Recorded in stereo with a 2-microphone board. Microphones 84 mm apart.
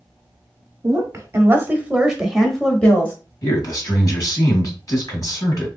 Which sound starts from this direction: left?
A man speaking, at 3.4 s.